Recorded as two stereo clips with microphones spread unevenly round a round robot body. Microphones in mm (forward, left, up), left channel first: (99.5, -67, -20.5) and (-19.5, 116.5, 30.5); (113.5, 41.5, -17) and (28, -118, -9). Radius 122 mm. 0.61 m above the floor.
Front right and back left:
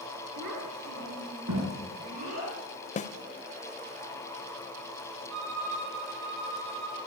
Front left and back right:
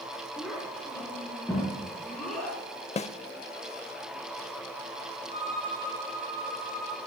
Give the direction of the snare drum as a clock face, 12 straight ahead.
12 o'clock.